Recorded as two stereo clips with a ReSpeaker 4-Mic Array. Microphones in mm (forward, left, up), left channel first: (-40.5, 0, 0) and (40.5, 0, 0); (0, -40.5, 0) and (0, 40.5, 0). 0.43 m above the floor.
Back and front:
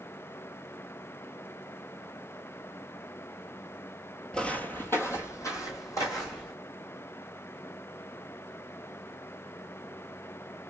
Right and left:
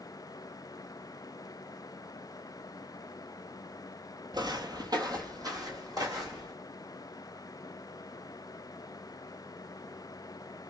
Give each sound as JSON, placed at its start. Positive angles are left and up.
{"t": 4.3, "sound": "footsteps", "azimuth_deg": 100, "distance_m": 0.6}